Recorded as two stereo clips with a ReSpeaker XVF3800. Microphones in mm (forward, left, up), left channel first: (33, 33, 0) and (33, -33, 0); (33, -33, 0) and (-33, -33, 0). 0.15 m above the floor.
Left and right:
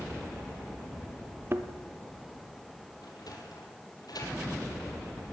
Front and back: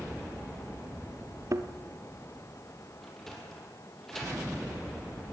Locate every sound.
1.5 s a thud: 140° right, 1.2 m
3.0 s a sliding door: 85° left, 4.5 m